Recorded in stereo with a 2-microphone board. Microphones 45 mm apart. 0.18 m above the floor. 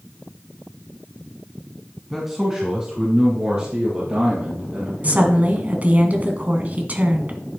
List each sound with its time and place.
2.1 s a man speaking: centre (ahead or behind), 1.3 m; by 5.5 s 40° right (ahead or behind), 4.5 m
5.0 s a woman speaking: 35° right (ahead or behind), 1.2 m